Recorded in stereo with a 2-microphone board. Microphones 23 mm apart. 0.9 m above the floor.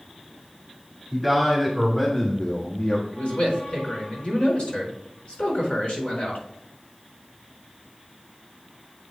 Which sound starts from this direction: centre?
A man speaking, at 1.1 s.